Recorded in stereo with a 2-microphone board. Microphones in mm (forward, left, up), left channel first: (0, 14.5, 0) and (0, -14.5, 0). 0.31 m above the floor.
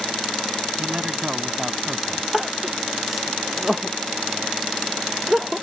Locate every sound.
0.8 s a man speaking: 40° right (ahead or behind)
2.3 s crying: 5° right (ahead or behind)